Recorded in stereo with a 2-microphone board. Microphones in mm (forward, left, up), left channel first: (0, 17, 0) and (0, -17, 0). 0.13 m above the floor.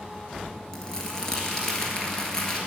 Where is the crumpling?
15° left (ahead or behind), 1.4 m.